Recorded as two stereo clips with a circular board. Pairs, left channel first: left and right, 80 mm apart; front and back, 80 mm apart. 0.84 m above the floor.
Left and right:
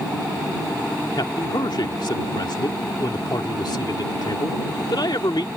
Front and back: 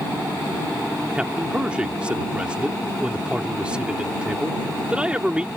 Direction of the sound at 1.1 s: 105° left.